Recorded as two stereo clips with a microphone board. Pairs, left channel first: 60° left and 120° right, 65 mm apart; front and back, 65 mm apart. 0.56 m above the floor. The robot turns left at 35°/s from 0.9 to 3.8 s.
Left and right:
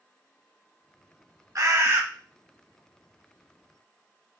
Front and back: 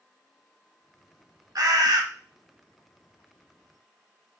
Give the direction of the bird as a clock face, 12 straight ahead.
5 o'clock.